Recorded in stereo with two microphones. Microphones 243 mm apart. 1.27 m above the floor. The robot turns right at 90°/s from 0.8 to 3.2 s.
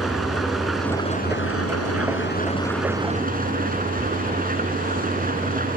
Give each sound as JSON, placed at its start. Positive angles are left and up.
{"t": 0.0, "sound": "an engine running", "azimuth_deg": 0}